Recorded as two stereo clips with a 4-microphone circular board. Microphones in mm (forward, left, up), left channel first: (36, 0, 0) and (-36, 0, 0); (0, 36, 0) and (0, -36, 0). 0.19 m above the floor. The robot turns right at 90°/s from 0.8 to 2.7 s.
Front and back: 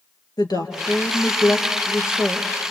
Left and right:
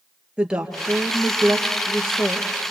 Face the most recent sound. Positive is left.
turn(degrees=160)